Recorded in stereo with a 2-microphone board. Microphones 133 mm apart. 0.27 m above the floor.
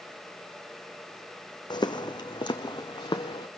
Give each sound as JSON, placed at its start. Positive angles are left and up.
{"t": 1.7, "sound": "footsteps", "side_deg": 35, "distance_m": 1.0}